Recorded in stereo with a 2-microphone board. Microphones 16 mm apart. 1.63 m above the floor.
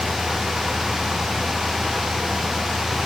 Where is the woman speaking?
I don't hear a woman speaking.